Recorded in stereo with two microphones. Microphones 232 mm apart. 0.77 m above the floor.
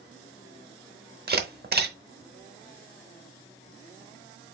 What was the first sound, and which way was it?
A camera shutter, 45° right (ahead or behind).